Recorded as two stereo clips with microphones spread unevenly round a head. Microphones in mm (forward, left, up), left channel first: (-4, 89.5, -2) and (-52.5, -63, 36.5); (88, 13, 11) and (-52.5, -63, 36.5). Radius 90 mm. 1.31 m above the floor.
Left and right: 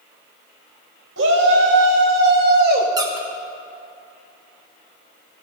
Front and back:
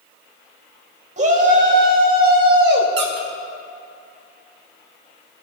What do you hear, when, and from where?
1.2 s a shout: 105° right, 3 m; by 2.9 s 140° right, 2.5 m
3.0 s a squeak: 170° right, 1.9 m